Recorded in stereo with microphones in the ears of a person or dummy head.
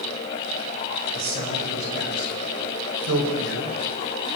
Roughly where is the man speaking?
Right.